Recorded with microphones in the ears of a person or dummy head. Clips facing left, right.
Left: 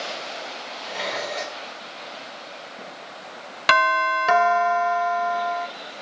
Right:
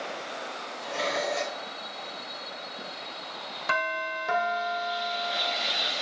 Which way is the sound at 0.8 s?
70° right (ahead or behind).